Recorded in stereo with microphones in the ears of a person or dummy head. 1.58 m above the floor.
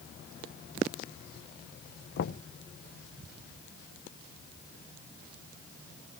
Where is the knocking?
55° left (ahead or behind), 0.7 m.